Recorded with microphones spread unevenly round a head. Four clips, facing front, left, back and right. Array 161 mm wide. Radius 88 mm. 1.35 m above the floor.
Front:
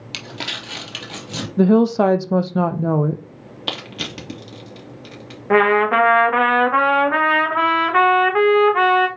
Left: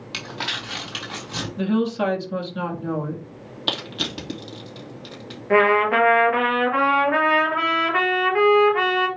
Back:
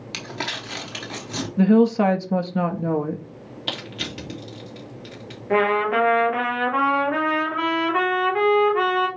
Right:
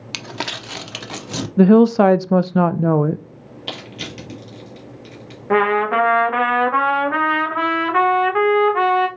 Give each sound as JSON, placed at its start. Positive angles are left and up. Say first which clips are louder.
{"t": 0.1, "sound": "crumpling", "louder": "right 3 dB, back 1 dB", "azimuth_deg": -95, "distance_m": 0.9}
{"t": 1.6, "sound": "a woman speaking", "louder": "right 11 dB, front 2 dB", "azimuth_deg": -55, "distance_m": 0.6}
{"t": 3.7, "sound": "crushing", "louder": "left 3 dB, front 3 dB", "azimuth_deg": 35, "distance_m": 2.5}
{"t": 5.5, "sound": "a trumpet", "louder": "right 1 dB, front 5 dB", "azimuth_deg": -15, "distance_m": 2.0}